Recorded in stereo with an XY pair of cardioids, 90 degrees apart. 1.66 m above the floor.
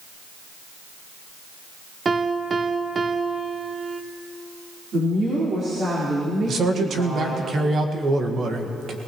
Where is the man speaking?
55° right, 1.8 m.